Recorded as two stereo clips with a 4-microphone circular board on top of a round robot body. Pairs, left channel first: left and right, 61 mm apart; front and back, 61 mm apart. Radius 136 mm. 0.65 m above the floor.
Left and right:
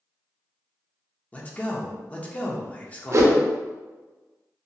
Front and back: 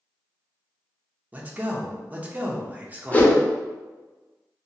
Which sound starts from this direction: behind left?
A man speaking, at 1.3 s.